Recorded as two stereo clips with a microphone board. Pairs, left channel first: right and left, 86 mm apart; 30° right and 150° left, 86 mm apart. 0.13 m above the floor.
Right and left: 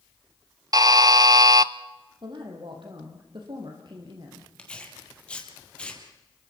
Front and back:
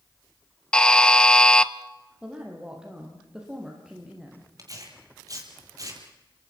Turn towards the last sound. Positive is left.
turn(degrees=-165)